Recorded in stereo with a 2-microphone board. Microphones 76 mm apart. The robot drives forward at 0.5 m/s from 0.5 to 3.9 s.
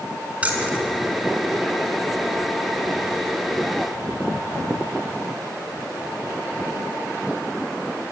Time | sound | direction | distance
0.4 | keys jangling | 20° right (ahead or behind) | 2.5 m